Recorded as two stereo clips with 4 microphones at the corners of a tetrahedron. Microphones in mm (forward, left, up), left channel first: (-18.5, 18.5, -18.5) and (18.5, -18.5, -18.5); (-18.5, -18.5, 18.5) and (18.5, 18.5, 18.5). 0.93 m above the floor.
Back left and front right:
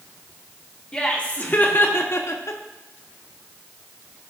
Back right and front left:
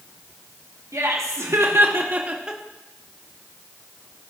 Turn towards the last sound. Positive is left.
turn(degrees=130)